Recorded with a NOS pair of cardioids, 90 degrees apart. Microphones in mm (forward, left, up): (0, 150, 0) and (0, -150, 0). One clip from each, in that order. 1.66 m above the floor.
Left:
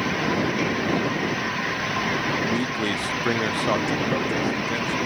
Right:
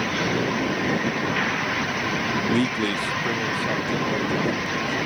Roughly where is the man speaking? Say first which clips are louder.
Right 1 dB; ahead right.